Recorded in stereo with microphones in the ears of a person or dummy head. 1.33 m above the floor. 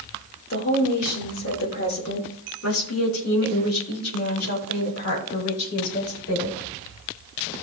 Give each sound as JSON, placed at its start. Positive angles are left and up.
{"t": 0.5, "sound": "a woman speaking", "side_deg": 55, "distance_m": 3.0}